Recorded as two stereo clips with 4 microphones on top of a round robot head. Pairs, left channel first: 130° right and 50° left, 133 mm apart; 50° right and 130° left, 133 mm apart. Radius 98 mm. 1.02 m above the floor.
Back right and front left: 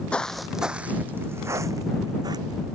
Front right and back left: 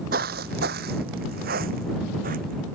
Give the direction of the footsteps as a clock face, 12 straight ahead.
7 o'clock.